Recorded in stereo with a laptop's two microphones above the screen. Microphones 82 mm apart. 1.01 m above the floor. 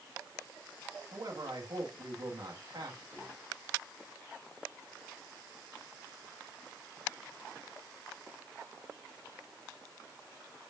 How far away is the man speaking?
About 1.5 m.